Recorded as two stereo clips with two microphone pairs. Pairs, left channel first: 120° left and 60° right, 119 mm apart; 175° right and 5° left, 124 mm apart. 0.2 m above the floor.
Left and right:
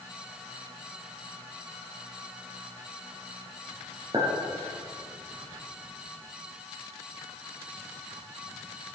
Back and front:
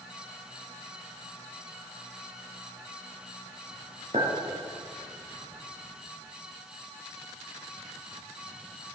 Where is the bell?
No bell in this recording.